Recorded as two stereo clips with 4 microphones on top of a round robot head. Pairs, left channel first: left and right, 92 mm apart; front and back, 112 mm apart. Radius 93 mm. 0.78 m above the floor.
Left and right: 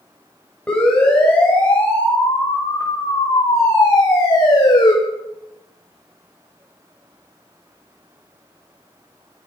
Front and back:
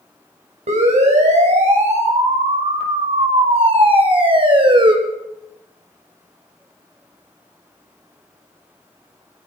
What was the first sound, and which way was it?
A siren, 170° left.